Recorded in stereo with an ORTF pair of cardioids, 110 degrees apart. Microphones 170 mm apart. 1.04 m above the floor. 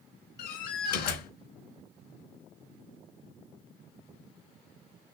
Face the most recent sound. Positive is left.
turn(degrees=70)